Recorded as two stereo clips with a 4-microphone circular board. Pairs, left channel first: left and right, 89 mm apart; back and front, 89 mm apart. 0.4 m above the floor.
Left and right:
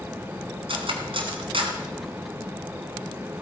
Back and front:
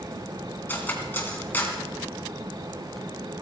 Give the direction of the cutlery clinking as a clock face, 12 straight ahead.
4 o'clock.